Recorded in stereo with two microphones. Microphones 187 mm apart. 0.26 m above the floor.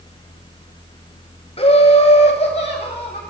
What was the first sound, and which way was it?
Laughter, 30° left (ahead or behind).